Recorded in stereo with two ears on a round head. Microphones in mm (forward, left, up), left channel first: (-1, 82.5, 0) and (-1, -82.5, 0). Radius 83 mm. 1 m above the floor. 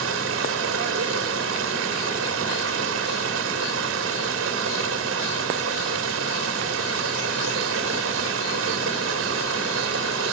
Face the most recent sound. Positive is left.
turn(degrees=-75)  # may be behind; listen again after turning